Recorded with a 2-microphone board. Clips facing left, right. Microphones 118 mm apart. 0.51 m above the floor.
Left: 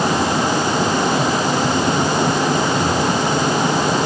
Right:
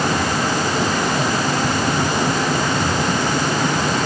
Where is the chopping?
I don't hear chopping.